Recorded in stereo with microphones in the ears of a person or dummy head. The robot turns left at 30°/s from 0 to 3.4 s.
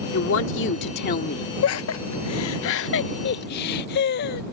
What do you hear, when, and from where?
0.1 s a woman speaking: 85° left; by 1.5 s 40° left
1.6 s laughter: 70° left (ahead or behind); by 4.4 s 55° left (ahead or behind)